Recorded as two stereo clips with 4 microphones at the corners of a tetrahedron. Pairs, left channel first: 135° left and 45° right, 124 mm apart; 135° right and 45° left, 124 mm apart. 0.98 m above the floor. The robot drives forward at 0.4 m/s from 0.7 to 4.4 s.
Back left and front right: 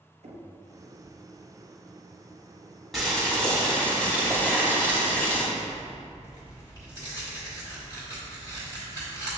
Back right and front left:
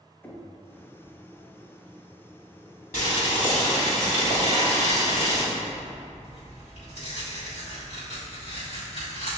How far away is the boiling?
About 1.3 m.